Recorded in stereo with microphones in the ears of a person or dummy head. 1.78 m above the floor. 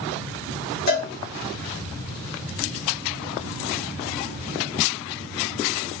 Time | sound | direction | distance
0.9 | a cowbell | 50° left (ahead or behind) | 1.5 m